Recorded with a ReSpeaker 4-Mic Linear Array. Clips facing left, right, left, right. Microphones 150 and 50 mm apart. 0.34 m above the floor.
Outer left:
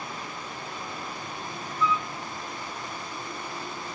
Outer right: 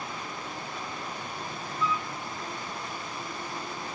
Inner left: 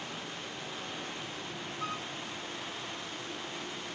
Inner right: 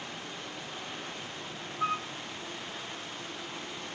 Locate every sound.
1.8 s a flute: 35° right (ahead or behind)